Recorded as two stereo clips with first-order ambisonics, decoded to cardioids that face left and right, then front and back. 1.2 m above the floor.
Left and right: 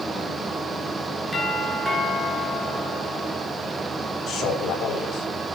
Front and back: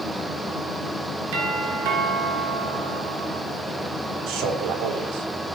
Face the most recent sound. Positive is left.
turn(degrees=150)